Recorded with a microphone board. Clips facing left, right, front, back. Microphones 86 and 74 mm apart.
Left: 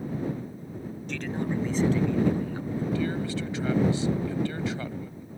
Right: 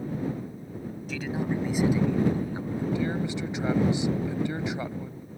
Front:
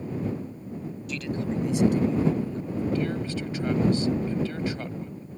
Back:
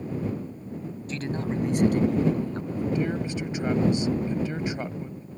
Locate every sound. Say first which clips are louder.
1.1 s a man speaking: even, even; 175° right; by 2.9 s 165° right
3.0 s a man speaking: even, back 1 dB; 135° right